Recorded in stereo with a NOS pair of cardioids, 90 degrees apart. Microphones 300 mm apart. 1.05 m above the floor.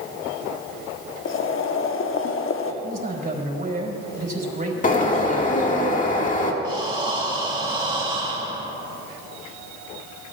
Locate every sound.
1.2 s boiling: 45° left, 1.1 m
2.8 s a man speaking: 30° right, 5 m
4.8 s a bird: 25° left, 2 m
6.6 s breathing: 15° right, 2.5 m